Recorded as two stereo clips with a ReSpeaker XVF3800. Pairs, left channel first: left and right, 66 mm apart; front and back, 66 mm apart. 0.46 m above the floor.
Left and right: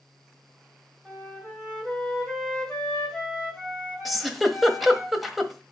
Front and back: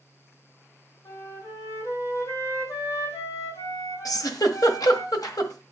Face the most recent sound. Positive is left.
turn(degrees=0)